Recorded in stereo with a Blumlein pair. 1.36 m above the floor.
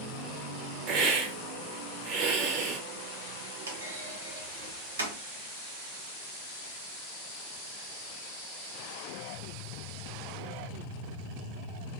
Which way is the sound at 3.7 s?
70° right.